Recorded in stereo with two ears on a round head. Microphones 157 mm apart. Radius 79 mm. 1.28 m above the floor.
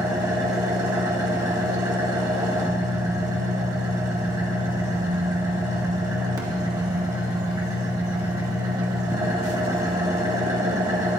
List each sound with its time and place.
0.0 s an engine running: 20° right (ahead or behind), 1.9 m